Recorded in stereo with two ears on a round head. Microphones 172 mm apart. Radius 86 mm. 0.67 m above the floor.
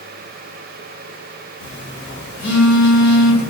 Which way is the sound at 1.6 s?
60° left (ahead or behind).